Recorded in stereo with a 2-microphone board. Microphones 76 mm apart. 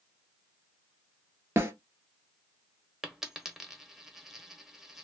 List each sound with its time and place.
1.6 s a snare drum: 30° right (ahead or behind), 1.1 m
3.0 s a dropped coin: 5° right (ahead or behind), 0.8 m